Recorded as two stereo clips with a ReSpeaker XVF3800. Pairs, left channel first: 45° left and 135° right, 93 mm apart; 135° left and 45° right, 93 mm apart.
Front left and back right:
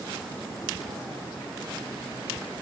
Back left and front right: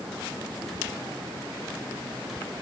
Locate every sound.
Only background noise.